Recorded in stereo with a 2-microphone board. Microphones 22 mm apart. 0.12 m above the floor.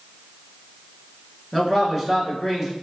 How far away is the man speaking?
About 1.0 m.